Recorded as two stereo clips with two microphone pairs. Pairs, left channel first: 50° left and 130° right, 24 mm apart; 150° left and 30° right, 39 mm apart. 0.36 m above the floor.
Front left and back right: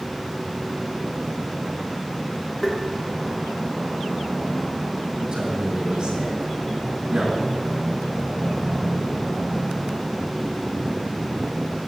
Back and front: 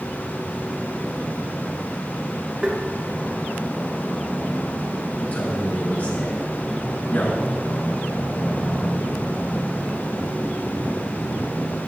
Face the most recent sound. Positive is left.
turn(degrees=-175)